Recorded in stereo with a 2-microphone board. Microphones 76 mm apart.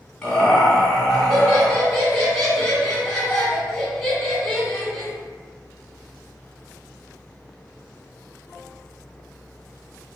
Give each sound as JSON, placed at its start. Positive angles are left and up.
{"t": 0.2, "sound": "laughter", "side_deg": 5, "distance_m": 1.5}